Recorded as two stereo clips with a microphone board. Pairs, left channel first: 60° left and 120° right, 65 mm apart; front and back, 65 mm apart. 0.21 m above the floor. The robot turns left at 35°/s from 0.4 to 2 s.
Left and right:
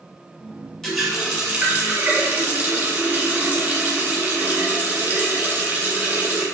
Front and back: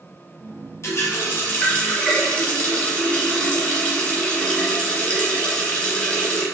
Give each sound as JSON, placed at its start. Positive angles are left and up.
{"t": 0.8, "sound": "a running tap", "azimuth_deg": -20, "distance_m": 1.2}